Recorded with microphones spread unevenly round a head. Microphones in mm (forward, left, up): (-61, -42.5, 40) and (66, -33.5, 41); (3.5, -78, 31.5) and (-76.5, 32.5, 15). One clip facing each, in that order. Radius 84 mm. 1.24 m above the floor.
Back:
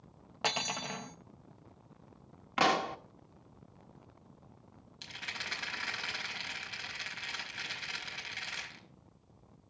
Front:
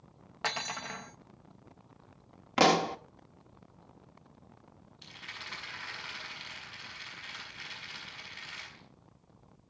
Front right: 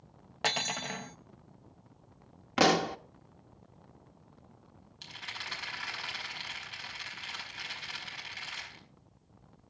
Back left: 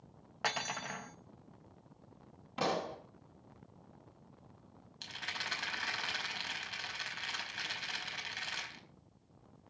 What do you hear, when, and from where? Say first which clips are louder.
0.4 s cutlery clinking: back 1 dB, front right 4 dB; 105° right, 0.7 m
2.6 s a pop: front 5 dB, front right 9 dB; 45° right, 1.2 m
5.0 s a rattle: back 3 dB, back left 1 dB; 160° left, 5 m